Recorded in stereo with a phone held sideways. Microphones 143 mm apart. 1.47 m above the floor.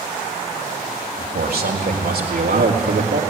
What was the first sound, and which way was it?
A man speaking, 80° right.